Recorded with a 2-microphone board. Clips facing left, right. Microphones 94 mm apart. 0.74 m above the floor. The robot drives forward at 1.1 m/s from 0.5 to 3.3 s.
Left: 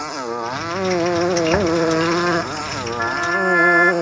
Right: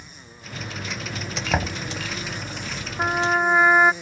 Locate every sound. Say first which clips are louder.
0.0 s a motorcycle: left 22 dB; 80° left; by 4.0 s 65° left (ahead or behind)
1.5 s knocking: left 10 dB; centre (ahead or behind)
3.0 s a trumpet: even; 5° right (ahead or behind)